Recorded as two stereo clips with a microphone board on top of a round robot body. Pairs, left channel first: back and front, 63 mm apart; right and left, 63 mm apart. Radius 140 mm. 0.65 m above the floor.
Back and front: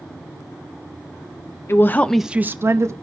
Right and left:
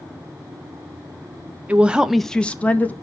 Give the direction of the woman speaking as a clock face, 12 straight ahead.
7 o'clock.